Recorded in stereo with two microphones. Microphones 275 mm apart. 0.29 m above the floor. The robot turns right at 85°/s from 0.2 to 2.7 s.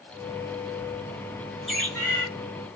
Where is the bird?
Centre (ahead or behind), 1.2 m; by 2.3 s 15° left (ahead or behind), 1.2 m.